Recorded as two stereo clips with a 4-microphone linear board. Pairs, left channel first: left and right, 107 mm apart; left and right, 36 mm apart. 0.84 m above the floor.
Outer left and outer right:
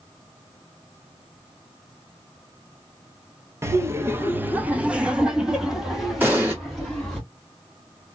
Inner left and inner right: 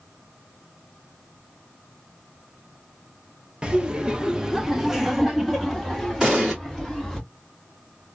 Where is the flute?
No flute in this recording.